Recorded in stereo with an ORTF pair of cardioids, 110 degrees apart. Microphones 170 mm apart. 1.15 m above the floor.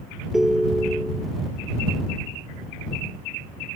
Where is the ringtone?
Straight ahead.